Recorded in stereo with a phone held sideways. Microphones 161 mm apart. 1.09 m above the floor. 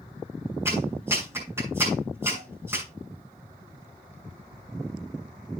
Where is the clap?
15° right (ahead or behind), 7.5 m.